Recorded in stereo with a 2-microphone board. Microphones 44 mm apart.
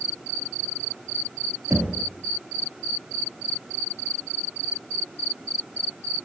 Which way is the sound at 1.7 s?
65° right (ahead or behind).